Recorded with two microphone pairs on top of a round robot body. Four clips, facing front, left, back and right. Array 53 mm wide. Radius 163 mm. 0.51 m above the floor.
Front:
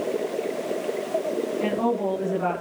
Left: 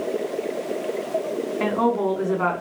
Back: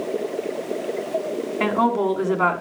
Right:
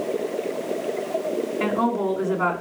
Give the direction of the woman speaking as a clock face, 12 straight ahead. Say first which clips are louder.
Left 2 dB, back 6 dB; 6 o'clock.